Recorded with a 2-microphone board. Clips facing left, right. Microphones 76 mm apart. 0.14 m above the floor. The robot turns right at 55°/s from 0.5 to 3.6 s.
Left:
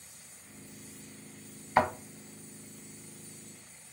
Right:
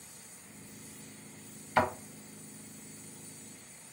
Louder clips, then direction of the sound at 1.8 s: Left 2 dB; 20° left (ahead or behind).